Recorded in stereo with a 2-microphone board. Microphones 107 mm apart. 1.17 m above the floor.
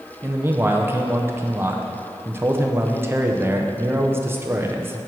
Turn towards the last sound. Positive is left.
turn(degrees=-20)  # may be behind; listen again after turning